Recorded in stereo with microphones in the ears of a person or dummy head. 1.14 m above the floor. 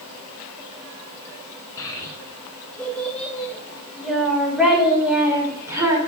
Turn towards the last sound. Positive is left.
turn(degrees=-20)  # may be behind; listen again after turning